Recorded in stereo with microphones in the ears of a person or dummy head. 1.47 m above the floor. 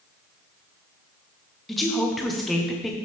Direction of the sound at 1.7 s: 5° left (ahead or behind).